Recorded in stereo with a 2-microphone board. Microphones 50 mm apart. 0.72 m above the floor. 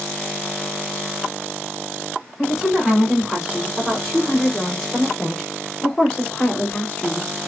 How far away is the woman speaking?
About 4 m.